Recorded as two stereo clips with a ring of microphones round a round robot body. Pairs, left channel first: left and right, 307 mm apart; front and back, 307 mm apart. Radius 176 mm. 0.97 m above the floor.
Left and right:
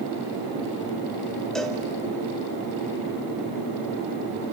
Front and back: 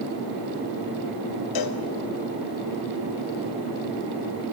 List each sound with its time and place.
1.6 s a cowbell: straight ahead, 1.5 m